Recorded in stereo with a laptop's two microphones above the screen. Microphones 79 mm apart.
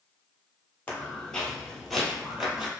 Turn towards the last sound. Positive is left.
turn(degrees=-15)  # may be behind; listen again after turning